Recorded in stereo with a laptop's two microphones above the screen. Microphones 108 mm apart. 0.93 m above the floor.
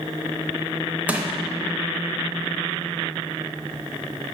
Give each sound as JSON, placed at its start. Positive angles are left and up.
{"t": 1.1, "sound": "crushing", "side_deg": -15, "distance_m": 0.7}